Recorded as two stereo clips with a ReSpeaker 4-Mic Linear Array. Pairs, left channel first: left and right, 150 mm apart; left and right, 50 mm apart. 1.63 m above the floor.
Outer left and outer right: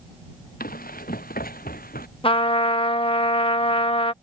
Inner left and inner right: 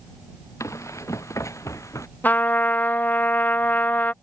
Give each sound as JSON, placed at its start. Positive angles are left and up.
{"t": 0.6, "sound": "running footsteps", "side_deg": 75}
{"t": 2.2, "sound": "a trumpet", "side_deg": 35}